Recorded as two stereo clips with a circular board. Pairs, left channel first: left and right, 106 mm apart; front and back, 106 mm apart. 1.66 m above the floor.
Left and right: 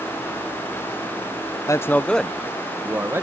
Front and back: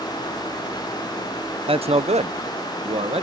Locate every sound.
1.7 s a man speaking: 150° left; by 3.2 s 155° right